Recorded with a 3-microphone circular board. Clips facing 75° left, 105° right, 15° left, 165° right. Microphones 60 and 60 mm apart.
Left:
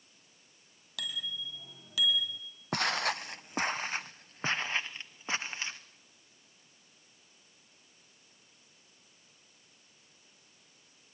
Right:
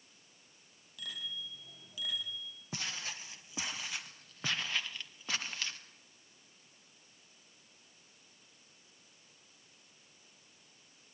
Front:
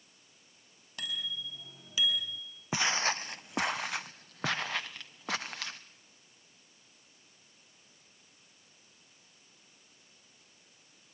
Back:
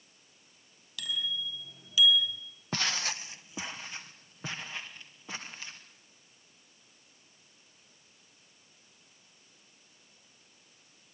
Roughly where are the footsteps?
Left.